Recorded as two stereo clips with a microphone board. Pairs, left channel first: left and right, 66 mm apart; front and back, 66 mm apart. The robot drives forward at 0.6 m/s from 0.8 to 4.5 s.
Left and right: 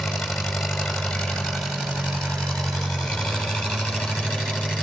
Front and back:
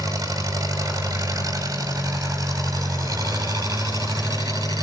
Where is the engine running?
175° left, 6.5 m.